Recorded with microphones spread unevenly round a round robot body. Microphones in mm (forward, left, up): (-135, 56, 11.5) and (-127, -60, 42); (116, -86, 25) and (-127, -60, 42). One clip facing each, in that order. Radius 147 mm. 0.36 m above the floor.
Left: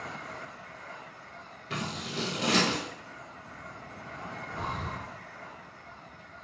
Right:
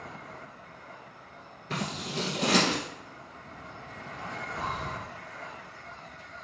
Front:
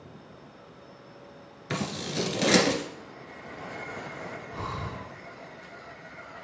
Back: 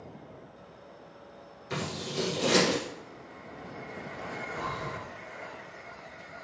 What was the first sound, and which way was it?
Scissors, 15° right.